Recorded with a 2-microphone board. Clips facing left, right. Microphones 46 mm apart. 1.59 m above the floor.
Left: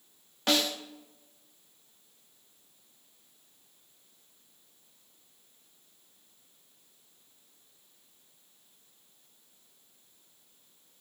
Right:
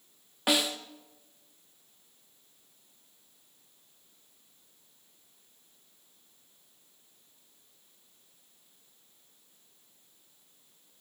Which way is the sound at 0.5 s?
15° right (ahead or behind).